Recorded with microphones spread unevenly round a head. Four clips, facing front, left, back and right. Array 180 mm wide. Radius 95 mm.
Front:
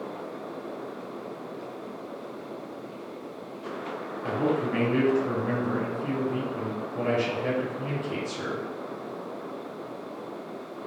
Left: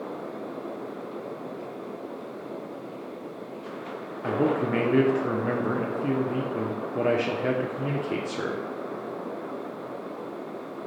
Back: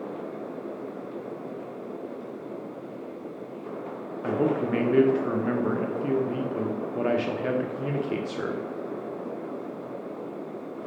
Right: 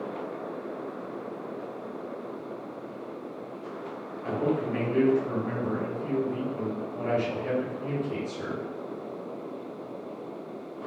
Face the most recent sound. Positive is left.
turn(degrees=130)